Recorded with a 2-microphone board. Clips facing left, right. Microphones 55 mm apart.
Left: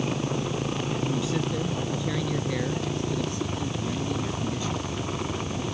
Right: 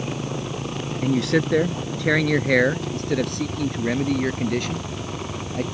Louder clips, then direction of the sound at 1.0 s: Right 10 dB; 85° right.